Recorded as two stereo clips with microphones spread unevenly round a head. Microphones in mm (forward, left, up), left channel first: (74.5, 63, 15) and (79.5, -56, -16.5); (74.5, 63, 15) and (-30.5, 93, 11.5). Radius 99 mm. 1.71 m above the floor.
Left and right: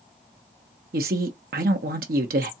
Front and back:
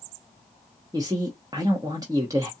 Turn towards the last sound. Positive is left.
turn(degrees=-120)